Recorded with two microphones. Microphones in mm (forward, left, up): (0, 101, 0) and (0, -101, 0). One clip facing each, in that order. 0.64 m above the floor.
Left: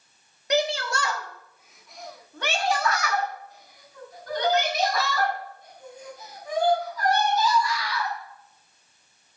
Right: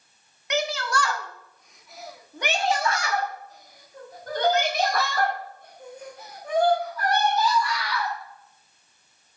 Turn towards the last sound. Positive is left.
turn(degrees=-65)  # may be behind; listen again after turning